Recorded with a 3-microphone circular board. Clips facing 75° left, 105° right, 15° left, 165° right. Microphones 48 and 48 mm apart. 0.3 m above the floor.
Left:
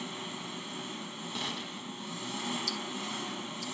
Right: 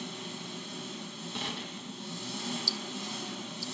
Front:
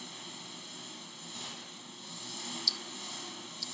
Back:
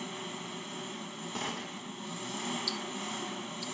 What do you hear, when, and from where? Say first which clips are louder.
0.0 s an engine running: left 1 dB, back 7 dB; 140° left, 0.8 m
1.4 s a gunshot: right 1 dB, back 10 dB; 170° left, 0.6 m
2.7 s ticking: left 1 dB, back 5 dB; 125° left, 0.5 m